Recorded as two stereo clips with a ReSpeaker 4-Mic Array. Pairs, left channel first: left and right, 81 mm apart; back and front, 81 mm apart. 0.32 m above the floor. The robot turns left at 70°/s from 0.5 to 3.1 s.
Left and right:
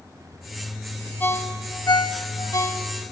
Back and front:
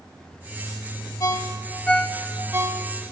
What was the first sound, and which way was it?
A ringtone, 150° left.